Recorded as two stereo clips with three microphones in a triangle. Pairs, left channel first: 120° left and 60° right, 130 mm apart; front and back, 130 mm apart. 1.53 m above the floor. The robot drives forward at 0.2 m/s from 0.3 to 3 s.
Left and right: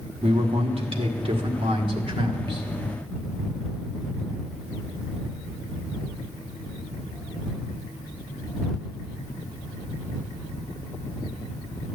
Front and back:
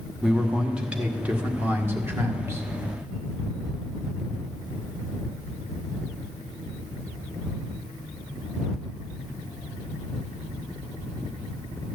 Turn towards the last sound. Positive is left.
turn(degrees=-115)